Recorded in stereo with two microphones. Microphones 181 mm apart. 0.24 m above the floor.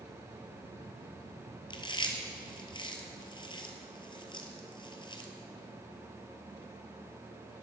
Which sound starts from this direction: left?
Chewing, at 1.7 s.